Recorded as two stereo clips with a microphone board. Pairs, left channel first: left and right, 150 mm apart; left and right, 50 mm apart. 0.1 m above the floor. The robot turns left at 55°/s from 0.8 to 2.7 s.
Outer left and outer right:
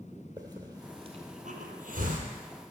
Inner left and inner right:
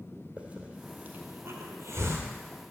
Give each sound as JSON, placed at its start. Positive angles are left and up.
{"t": 0.4, "sound": "a hiss", "side_deg": -25, "distance_m": 2.5}